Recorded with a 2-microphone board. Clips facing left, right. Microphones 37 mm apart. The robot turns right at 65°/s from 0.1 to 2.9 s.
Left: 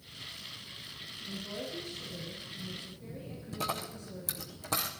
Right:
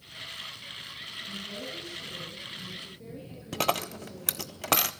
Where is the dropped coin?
70° right (ahead or behind), 0.5 m.